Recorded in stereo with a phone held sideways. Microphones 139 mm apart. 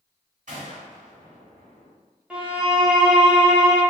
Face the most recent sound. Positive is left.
turn(degrees=-10)  # may be behind; listen again after turning